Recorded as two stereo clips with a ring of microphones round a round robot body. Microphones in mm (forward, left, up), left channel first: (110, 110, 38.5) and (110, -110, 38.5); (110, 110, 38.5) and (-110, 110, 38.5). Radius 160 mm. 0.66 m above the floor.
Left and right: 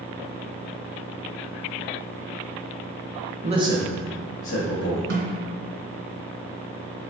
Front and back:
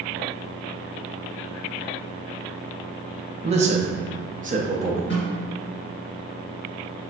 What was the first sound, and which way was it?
A man speaking, 130° right.